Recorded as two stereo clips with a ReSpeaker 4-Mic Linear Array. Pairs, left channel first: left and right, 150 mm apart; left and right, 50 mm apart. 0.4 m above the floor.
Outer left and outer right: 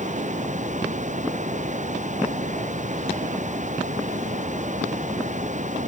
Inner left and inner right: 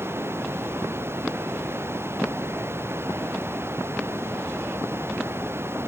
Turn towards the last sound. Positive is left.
turn(degrees=-55)  # may be behind; listen again after turning